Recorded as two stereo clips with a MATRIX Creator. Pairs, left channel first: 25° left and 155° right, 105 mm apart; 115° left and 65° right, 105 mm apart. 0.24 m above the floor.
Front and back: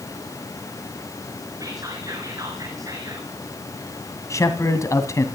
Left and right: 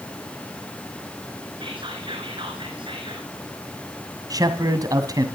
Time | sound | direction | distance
1.6 | whispering | 105° right | 2.5 m
4.3 | a man speaking | 25° right | 2 m